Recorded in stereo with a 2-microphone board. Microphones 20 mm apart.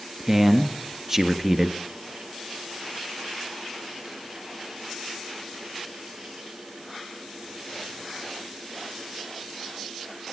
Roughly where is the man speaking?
Right.